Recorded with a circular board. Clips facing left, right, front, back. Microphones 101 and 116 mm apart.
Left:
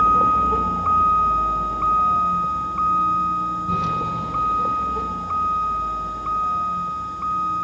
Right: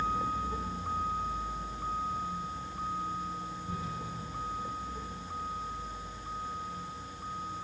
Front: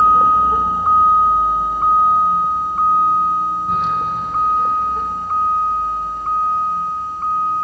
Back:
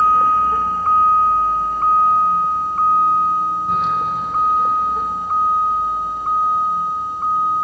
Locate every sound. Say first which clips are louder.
0.0 s a vehicle: left 16 dB, front 2 dB; 70° left; by 7.6 s 100° left